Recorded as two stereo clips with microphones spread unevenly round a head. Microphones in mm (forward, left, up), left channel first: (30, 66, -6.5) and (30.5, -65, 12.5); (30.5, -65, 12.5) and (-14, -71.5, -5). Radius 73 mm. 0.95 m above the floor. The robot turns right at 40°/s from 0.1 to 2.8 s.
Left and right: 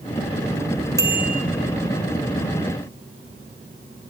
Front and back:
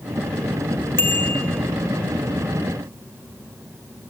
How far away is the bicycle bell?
About 3.5 m.